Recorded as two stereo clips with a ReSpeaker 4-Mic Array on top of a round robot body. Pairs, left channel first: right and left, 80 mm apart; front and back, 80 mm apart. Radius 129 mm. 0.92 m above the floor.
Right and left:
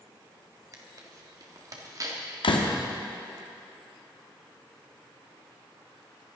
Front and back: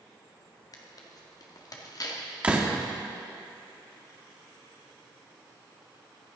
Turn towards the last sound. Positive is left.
turn(degrees=-105)